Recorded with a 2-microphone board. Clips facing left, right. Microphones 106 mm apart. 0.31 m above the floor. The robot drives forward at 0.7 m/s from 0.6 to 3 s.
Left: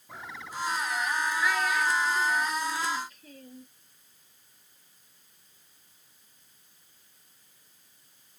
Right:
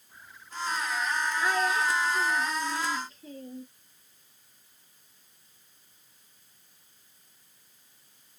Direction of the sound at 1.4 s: 30° right (ahead or behind).